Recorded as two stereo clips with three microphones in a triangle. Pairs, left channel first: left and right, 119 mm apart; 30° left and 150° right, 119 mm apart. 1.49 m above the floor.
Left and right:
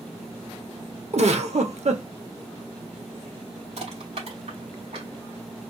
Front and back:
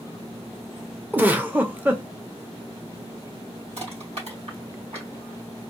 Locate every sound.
1.1 s a giggle: 75° right, 0.7 m
3.8 s crushing: 120° right, 2.5 m